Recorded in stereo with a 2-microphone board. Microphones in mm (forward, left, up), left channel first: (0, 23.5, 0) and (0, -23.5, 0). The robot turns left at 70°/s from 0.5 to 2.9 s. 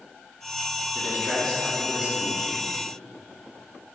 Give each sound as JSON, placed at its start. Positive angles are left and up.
{"t": 0.9, "sound": "a man speaking", "azimuth_deg": 50, "distance_m": 3.0}